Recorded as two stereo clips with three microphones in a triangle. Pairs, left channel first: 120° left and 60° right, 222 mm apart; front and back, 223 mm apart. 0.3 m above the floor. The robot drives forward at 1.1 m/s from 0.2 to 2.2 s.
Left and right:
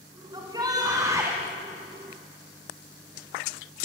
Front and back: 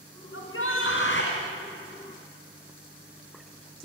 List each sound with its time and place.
0.3 s a shout: 10° left, 3.5 m; by 1.4 s 15° left, 2.5 m